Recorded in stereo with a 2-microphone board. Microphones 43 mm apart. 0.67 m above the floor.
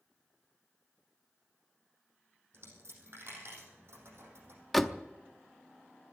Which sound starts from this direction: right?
A dropped coin, at 2.5 s.